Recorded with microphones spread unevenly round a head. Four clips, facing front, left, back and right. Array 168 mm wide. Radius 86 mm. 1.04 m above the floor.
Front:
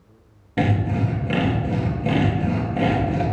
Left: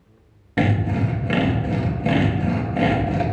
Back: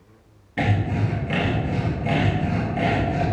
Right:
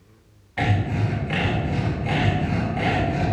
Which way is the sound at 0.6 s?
85° left.